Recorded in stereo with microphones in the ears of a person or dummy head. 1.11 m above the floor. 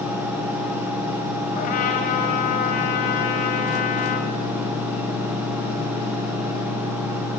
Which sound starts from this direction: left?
A trumpet, at 1.5 s.